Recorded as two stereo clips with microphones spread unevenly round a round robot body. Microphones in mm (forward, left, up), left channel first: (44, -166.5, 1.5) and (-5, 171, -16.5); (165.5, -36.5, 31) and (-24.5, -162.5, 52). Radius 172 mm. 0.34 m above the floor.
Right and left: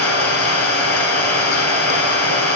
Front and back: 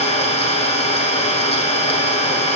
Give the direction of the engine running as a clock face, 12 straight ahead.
1 o'clock.